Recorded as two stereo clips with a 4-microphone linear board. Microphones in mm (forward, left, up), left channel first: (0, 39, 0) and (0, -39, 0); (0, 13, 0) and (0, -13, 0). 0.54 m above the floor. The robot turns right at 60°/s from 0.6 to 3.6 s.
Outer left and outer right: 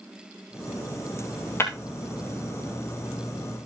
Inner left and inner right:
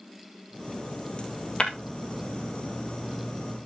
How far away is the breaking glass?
About 2.5 m.